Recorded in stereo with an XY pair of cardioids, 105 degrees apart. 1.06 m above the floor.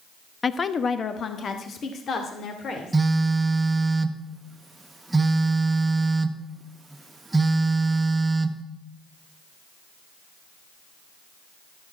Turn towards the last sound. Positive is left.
turn(degrees=-15)